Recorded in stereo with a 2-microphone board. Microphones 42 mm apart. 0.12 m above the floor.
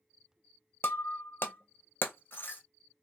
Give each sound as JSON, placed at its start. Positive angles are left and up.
{"t": 0.8, "sound": "breaking glass", "side_deg": 50, "distance_m": 0.8}